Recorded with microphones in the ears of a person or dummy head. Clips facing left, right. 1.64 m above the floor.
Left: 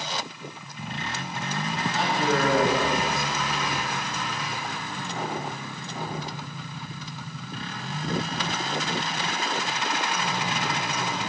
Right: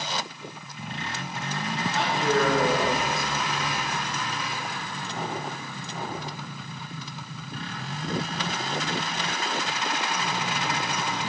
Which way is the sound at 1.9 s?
80° left.